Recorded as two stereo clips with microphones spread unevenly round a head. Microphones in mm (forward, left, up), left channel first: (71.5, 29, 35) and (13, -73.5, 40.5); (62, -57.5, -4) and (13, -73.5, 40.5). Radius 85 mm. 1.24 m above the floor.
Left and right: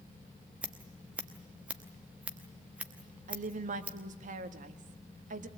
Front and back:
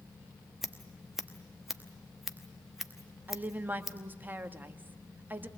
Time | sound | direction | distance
0.6 | scissors | 160° left | 0.8 m
3.3 | a woman speaking | 110° right | 1.7 m